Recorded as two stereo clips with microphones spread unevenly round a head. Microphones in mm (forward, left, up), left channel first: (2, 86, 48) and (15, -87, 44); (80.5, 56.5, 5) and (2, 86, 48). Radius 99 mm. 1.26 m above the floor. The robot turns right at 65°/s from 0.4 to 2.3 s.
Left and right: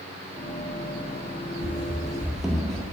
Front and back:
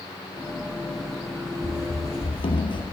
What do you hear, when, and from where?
1.6 s running footsteps: 60° right, 2.0 m; by 2.8 s 15° left, 1.6 m